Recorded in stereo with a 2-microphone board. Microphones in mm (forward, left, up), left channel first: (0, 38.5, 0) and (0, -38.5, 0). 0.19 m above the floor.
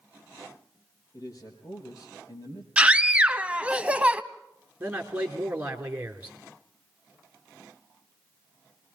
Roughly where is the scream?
Centre.